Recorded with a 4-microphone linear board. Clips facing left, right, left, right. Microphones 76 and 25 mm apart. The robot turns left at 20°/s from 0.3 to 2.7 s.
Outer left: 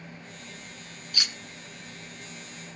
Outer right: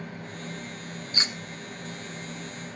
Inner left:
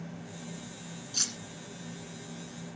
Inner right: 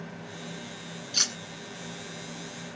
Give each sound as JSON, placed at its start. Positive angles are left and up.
{"t": 1.1, "sound": "cutlery clinking", "side_deg": -35, "distance_m": 1.0}